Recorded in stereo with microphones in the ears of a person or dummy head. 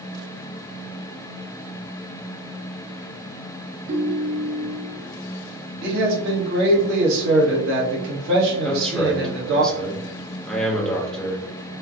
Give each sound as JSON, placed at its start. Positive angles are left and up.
{"t": 3.9, "sound": "a ringtone", "side_deg": -50, "distance_m": 1.2}
{"t": 5.8, "sound": "a man speaking", "side_deg": -60, "distance_m": 1.3}
{"t": 8.6, "sound": "a man speaking", "side_deg": 10, "distance_m": 1.0}